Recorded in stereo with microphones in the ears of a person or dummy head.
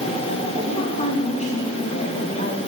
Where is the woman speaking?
30° left (ahead or behind), 6 m; by 2.6 s 40° left (ahead or behind), 4.5 m.